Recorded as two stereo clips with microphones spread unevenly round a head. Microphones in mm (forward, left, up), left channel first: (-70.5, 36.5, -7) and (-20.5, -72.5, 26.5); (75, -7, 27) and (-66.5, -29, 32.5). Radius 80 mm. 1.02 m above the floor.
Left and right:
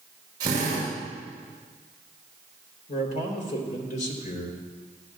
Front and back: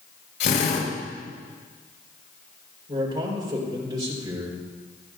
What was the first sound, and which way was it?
A drill, straight ahead.